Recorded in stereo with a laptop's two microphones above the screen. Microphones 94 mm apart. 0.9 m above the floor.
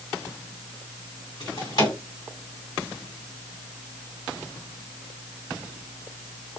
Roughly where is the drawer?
Left.